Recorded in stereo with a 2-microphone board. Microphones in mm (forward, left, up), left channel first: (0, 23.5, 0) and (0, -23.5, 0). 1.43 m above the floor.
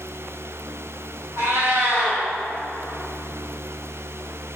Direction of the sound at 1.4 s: 70° right (ahead or behind).